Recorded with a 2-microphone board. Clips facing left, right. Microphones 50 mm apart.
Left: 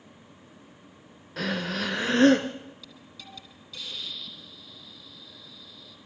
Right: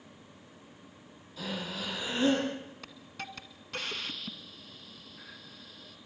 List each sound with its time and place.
1.4 s breathing: 75° left (ahead or behind), 1.8 m
2.8 s a hiss: 60° right (ahead or behind), 1.7 m